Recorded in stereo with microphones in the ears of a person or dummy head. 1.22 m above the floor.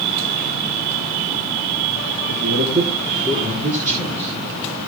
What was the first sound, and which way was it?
A man speaking, 60° right (ahead or behind).